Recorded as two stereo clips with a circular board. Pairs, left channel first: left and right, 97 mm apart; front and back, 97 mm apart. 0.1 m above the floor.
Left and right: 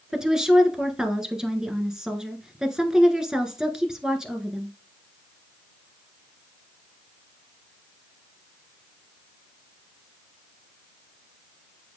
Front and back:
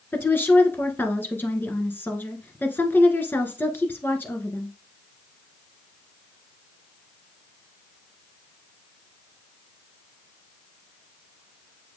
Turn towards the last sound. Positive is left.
turn(degrees=-20)